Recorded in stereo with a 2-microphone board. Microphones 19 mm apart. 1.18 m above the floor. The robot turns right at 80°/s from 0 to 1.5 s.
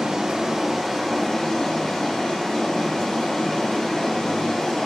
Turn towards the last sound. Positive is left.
turn(degrees=50)